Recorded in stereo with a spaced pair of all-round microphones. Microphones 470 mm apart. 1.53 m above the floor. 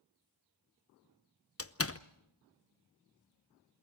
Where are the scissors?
I don't hear scissors.